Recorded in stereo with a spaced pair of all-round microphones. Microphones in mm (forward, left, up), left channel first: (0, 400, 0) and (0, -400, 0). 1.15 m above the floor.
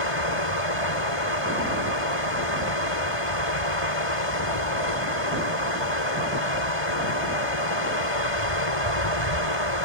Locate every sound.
0.0 s a fan: 40° left (ahead or behind)